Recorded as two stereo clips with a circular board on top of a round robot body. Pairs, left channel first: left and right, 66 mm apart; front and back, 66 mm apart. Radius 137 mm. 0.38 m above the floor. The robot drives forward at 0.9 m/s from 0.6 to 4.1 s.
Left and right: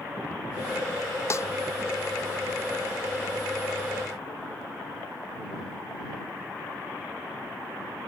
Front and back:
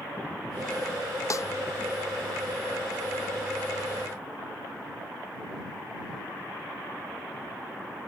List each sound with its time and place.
1.3 s a snare drum: 40° left